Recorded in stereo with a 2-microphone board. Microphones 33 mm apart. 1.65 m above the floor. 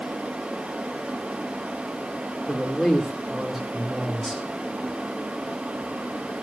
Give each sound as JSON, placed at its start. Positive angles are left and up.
{"t": 2.5, "sound": "a man speaking", "side_deg": 5, "distance_m": 3.0}